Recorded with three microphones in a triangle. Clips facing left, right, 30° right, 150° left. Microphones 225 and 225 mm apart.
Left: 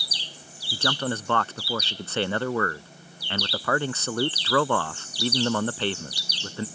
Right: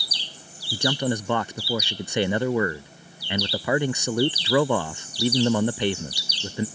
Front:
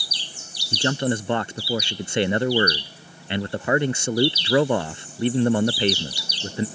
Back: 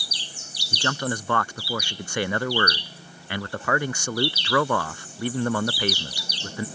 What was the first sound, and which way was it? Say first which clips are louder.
A man speaking: right 4 dB, front 5 dB; 35° right.